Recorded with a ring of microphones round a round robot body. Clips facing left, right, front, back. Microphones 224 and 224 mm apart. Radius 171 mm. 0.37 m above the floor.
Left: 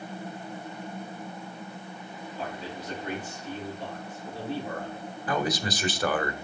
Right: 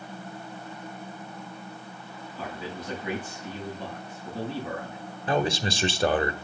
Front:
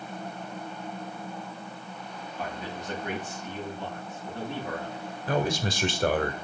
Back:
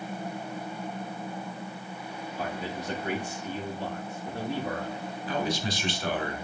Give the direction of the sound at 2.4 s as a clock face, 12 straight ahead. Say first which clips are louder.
Right 1 dB, back 2 dB; 4 o'clock.